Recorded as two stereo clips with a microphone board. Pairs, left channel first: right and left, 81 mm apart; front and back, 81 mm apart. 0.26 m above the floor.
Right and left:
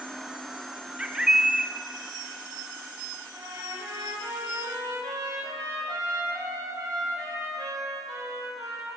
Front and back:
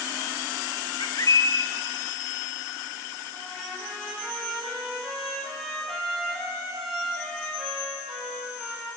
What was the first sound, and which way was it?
A bird, 10° left.